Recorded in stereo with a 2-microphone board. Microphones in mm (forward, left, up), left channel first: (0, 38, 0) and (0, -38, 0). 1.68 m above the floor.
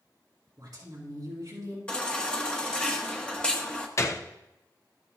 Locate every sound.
0.6 s a woman speaking: 55° right (ahead or behind), 3 m
1.9 s a baby crying: 15° left (ahead or behind), 1.0 m
4.0 s a gunshot: 40° left (ahead or behind), 0.7 m